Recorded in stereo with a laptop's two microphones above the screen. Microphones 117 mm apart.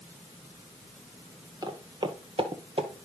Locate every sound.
1.6 s footsteps: 35° right (ahead or behind), 1.3 m; by 2.9 s 55° right (ahead or behind), 1.7 m